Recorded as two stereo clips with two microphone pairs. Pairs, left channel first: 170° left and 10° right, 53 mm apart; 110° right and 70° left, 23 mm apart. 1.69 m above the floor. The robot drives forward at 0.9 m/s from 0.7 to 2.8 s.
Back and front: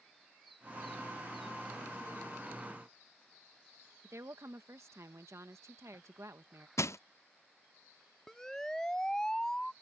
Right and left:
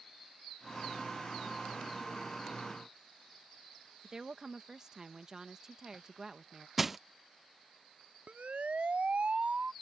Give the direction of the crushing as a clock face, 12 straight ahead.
7 o'clock.